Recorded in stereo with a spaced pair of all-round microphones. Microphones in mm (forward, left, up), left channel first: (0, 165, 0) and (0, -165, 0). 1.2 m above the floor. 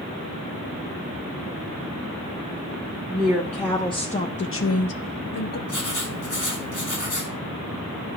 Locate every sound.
3.1 s a woman speaking: 5° right (ahead or behind), 1.0 m; by 5.6 s 50° left (ahead or behind), 0.8 m
5.7 s writing: 60° left (ahead or behind), 1.6 m